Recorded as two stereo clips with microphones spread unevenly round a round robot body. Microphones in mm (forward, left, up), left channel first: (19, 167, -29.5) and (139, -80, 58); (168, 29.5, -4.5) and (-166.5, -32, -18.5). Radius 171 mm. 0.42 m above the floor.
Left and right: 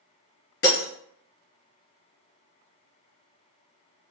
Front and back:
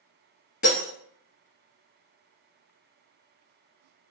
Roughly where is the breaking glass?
Left.